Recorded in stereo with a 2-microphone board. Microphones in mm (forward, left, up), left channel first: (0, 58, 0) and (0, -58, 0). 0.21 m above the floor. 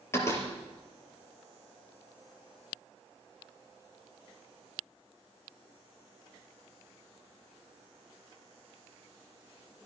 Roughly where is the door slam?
Left.